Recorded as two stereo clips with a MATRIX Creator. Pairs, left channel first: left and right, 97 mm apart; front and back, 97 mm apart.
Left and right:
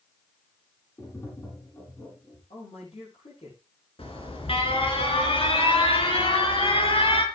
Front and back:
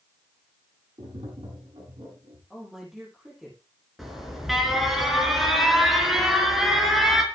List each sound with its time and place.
1.0 s tapping: 150° left, 7.5 m
2.5 s a man speaking: 95° left, 10 m
4.0 s an alarm: 90° left, 4 m